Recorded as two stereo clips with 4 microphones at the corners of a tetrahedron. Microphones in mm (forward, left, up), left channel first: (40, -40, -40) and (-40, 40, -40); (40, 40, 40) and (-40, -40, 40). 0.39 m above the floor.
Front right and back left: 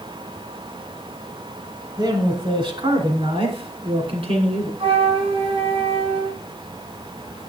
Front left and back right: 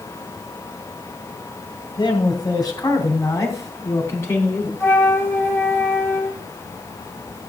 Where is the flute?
110° left, 1.9 m.